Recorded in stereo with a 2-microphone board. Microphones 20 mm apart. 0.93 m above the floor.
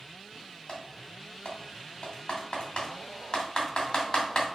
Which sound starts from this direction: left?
Typing on a keyboard, at 0.7 s.